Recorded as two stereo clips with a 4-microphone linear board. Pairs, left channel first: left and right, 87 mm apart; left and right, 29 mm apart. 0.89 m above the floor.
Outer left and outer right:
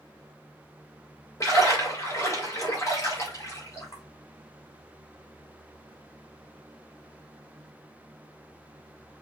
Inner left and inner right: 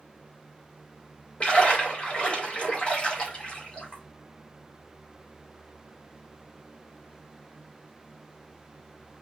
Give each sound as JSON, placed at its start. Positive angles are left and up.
{"t": 1.4, "sound": "a splash", "side_deg": 35, "distance_m": 3.5}